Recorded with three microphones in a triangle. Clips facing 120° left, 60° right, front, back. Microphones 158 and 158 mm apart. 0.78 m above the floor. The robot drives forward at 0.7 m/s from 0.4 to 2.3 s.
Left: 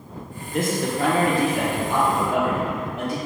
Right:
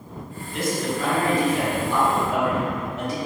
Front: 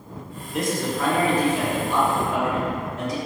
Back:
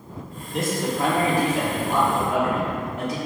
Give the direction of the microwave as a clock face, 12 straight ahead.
I don't hear a microwave.